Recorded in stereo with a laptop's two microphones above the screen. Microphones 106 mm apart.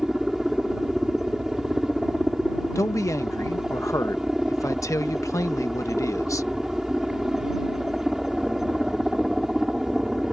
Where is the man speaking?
30° left (ahead or behind).